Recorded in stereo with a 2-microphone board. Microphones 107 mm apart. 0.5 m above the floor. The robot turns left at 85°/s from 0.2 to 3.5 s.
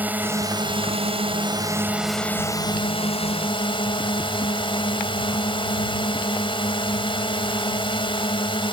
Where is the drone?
20° right; by 8.7 s 60° left.